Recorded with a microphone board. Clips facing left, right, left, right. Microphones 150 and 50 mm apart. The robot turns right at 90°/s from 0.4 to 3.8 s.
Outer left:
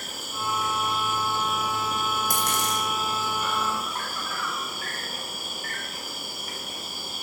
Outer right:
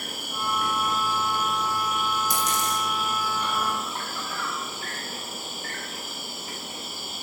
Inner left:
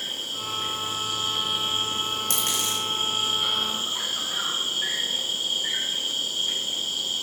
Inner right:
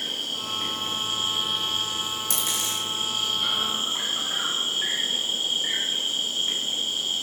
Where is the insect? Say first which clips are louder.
Outer right 1 dB, inner right 1 dB; 100° right, 1.3 m; by 7.2 s 155° right, 1.3 m.